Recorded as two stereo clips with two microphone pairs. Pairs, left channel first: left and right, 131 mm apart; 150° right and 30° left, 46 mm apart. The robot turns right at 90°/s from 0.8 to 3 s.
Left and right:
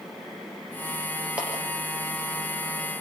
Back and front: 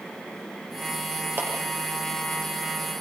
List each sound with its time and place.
1.4 s a clap: 10° right, 7 m; by 1.5 s 5° left, 7 m